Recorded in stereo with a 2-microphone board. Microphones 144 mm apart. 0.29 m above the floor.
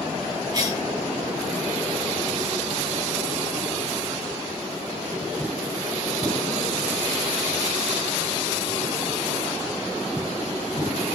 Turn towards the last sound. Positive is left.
turn(degrees=-30)  # may be behind; listen again after turning